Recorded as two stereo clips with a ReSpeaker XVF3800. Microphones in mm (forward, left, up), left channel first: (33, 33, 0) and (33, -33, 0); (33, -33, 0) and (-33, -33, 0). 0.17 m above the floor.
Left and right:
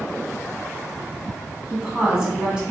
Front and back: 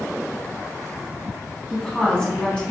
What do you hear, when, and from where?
1.7 s a woman speaking: 40° right, 1.5 m